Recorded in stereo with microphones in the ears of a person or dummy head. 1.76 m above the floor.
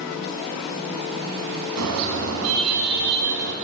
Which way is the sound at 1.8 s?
80° right.